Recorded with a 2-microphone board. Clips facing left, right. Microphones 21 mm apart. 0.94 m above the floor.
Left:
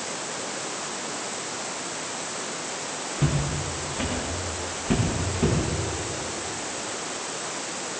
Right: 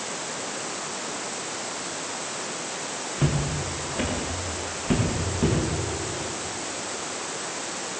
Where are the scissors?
No scissors in this recording.